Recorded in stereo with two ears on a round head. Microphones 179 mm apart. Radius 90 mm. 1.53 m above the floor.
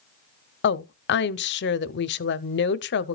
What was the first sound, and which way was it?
A woman speaking, 60° left (ahead or behind).